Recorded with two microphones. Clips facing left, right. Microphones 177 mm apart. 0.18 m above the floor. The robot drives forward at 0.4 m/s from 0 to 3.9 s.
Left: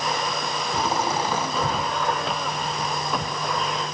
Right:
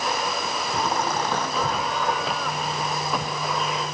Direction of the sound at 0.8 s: 10° left (ahead or behind).